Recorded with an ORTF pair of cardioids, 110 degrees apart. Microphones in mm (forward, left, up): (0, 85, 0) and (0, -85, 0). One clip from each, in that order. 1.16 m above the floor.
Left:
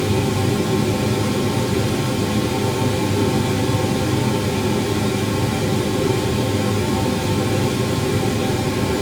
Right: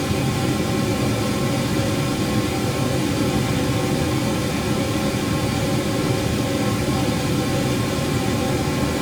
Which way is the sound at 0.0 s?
5° left.